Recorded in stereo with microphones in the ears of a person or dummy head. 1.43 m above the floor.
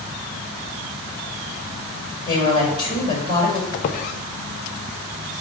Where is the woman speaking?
25° left (ahead or behind), 5 m.